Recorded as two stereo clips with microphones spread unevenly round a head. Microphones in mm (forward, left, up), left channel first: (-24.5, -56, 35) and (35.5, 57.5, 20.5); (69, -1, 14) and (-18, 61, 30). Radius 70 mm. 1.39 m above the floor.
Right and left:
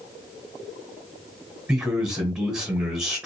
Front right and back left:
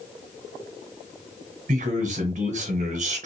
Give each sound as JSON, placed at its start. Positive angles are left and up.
{"t": 1.7, "sound": "a man speaking", "azimuth_deg": 140, "distance_m": 1.3}